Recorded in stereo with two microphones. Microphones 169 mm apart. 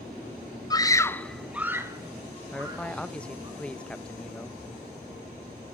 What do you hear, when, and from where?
0.7 s a scream: 25° left (ahead or behind), 0.8 m; by 3.5 s 25° right (ahead or behind), 2 m
2.5 s a man speaking: 5° left (ahead or behind), 0.7 m